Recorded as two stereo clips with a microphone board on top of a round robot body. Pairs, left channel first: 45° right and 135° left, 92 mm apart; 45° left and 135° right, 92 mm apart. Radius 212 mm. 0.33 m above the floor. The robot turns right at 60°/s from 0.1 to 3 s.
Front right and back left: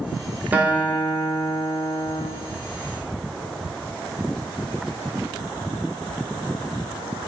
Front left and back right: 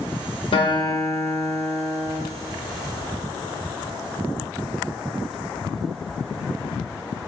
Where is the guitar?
60° left, 1.0 m; by 2.2 s 160° left, 1.0 m.